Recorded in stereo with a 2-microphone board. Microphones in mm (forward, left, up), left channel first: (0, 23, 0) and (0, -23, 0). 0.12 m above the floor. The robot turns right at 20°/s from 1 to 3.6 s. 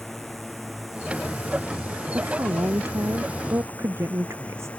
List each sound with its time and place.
0.0 s a drone: 5° left (ahead or behind); by 4.8 s 25° left (ahead or behind)
2.1 s a woman speaking: 70° right (ahead or behind); by 4.7 s 75° right (ahead or behind)